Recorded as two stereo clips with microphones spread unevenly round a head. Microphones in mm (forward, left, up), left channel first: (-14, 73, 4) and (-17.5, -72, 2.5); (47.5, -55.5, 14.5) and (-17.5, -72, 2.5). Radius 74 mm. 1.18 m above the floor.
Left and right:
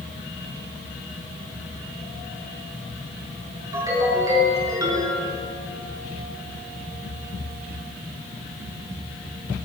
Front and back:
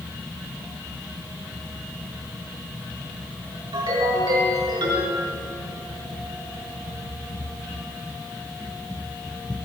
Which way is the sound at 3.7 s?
160° right.